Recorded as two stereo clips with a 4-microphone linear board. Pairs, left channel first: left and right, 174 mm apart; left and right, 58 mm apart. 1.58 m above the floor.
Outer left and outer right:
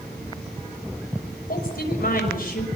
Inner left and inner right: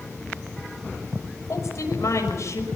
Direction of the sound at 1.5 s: 55° left (ahead or behind).